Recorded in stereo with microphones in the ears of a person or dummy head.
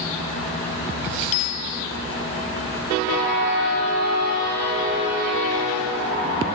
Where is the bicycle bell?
45° left (ahead or behind).